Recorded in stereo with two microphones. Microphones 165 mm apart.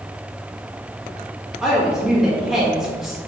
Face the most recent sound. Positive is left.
turn(degrees=0)  # may be behind; listen again after turning